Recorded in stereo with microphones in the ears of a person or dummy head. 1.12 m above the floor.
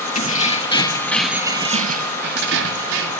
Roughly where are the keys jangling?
Left.